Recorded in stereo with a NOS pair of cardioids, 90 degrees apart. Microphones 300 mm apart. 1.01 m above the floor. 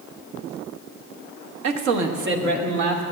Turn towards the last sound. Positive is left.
turn(degrees=-75)